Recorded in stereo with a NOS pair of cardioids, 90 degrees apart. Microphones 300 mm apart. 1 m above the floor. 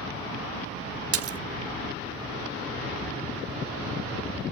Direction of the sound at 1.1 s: 50° right.